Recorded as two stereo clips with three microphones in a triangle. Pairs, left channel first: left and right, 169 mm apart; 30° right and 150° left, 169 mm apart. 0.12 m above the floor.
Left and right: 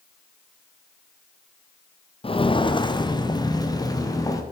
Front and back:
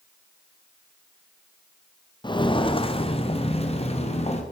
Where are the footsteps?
30° left, 0.9 m; by 4.4 s 20° left, 2.5 m.